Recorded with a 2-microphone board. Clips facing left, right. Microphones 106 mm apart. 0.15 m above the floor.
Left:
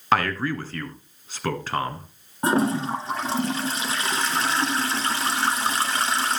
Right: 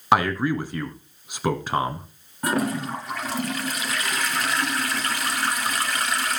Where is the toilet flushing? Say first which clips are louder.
Left 3 dB; 30° left (ahead or behind), 1.4 m.